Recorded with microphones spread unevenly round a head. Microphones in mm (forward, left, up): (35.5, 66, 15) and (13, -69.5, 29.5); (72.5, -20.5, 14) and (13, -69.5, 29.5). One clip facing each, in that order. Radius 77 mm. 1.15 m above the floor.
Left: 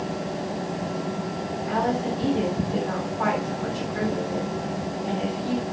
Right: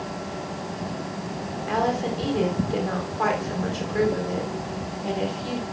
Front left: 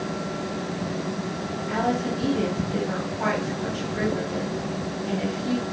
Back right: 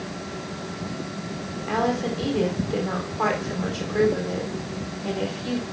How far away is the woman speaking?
About 3.5 m.